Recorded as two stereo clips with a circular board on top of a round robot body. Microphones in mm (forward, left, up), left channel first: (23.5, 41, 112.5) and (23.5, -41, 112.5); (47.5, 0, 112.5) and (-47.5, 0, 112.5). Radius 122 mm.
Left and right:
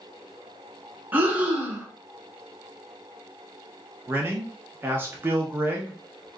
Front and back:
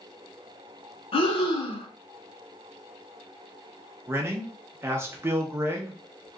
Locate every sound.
1.1 s breathing: 20° right, 1.0 m
4.1 s a man speaking: 135° right, 0.7 m